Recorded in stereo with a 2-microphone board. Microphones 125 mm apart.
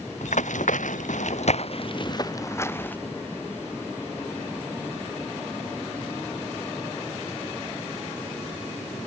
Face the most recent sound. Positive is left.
turn(degrees=15)  # may be behind; listen again after turning